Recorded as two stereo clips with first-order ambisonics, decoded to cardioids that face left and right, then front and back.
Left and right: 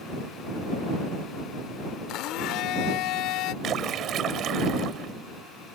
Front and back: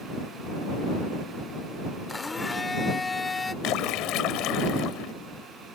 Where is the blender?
75° left.